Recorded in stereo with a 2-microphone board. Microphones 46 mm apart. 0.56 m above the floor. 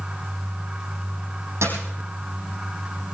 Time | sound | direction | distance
1.6 | a dropped coin | 75° right (ahead or behind) | 4.5 m